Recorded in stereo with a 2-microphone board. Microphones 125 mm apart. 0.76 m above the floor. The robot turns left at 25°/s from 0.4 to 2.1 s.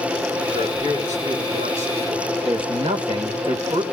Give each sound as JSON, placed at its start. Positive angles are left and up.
{"t": 0.5, "sound": "a man speaking", "azimuth_deg": -50, "distance_m": 8.0}
{"t": 2.4, "sound": "a man speaking", "side_deg": -50, "distance_m": 2.5}